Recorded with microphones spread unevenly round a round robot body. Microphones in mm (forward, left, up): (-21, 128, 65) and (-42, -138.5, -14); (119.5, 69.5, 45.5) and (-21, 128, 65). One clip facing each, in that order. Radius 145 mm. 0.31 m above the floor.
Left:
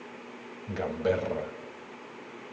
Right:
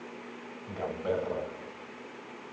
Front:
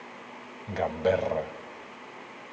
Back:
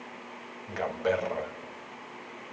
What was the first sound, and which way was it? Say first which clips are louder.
A man speaking: left 4 dB, front 3 dB; 25° left.